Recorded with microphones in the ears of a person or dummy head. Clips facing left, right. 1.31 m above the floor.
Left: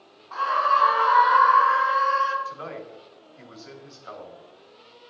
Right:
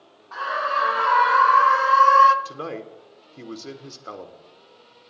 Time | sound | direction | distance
0.3 | a scream | 10° right (ahead or behind) | 1.4 m
2.5 | a man speaking | 50° right (ahead or behind) | 1.0 m